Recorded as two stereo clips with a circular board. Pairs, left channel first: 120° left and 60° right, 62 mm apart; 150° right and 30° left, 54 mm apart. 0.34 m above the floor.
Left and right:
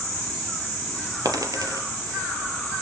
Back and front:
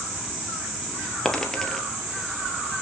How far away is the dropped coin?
About 3 m.